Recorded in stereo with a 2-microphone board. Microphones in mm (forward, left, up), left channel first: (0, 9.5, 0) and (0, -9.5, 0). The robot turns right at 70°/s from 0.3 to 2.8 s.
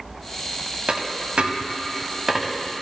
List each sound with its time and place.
0.9 s a dropped coin: 55° right (ahead or behind), 0.6 m; by 2.6 s centre (ahead or behind), 0.6 m